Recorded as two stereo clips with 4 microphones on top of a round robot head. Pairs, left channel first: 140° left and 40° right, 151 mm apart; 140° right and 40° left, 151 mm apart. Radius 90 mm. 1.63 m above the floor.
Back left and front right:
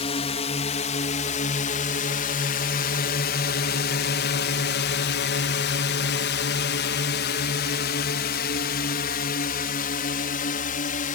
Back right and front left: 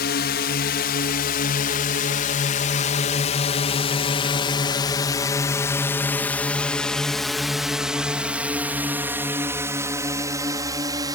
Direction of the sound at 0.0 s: 165° right.